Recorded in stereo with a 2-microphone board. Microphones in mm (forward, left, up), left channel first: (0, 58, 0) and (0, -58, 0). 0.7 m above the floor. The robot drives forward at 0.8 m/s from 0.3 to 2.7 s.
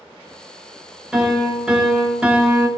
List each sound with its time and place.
1.1 s a piano: 5° right (ahead or behind), 1.7 m; by 2.7 s 20° right (ahead or behind), 0.5 m